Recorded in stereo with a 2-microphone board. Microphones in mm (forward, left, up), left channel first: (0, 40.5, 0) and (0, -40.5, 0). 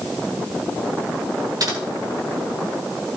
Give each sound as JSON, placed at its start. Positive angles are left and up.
{"t": 1.6, "sound": "typing on a keyboard", "side_deg": -50, "distance_m": 4.5}